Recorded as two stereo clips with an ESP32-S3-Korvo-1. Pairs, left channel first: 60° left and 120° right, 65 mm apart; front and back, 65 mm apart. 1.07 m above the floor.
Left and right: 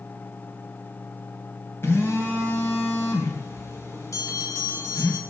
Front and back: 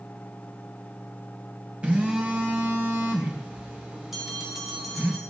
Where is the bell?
95° left, 3.5 m.